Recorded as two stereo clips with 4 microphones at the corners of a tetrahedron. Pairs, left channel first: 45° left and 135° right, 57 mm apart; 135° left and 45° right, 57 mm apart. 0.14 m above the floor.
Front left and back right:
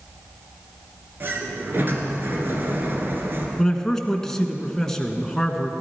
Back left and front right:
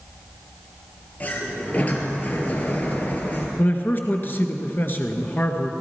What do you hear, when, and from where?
1.2 s a sliding door: 175° right, 2 m
3.6 s a man speaking: 120° left, 1.4 m